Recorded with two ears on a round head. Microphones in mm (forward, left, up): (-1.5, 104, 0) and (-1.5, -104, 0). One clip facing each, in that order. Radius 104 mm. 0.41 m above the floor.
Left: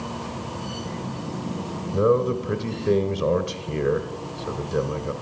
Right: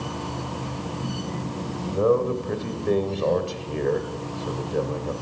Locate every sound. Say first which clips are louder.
1.9 s a man speaking: left 1 dB; 20° left (ahead or behind), 1.3 m